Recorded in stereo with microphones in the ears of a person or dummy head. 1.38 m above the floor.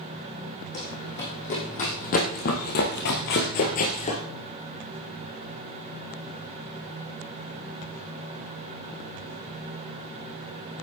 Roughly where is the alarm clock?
No alarm clock in this recording.